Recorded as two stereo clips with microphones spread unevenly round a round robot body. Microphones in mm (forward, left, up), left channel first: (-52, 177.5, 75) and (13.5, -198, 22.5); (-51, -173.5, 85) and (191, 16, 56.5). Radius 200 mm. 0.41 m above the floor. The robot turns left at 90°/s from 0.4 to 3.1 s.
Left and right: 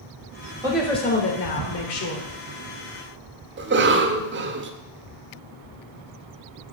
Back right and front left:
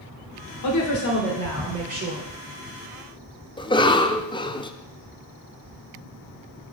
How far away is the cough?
About 0.9 m.